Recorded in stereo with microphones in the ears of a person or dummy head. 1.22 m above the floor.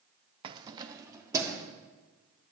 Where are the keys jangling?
30° right (ahead or behind), 0.5 m; by 1.7 s 15° right (ahead or behind), 1.8 m.